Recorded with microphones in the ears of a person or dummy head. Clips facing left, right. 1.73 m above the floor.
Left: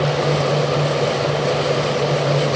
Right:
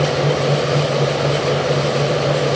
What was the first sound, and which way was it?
Only background noise.